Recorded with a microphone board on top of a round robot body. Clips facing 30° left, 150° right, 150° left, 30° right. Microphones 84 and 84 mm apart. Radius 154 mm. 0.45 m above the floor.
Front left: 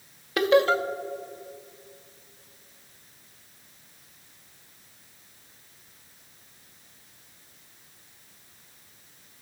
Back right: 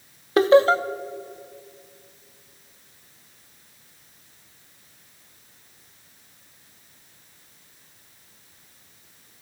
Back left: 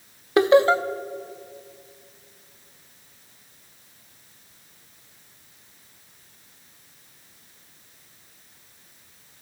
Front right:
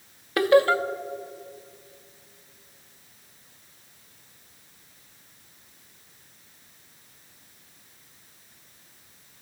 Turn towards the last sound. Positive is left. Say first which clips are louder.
# back right 5 dB, back left 2 dB
turn(degrees=-165)